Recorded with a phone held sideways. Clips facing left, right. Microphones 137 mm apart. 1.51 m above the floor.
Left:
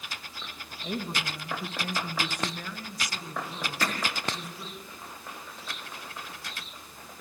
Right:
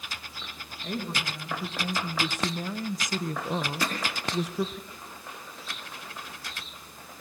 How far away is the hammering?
About 6 m.